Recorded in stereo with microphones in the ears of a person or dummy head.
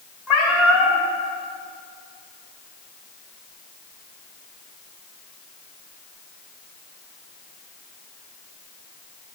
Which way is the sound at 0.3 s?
5° right (ahead or behind).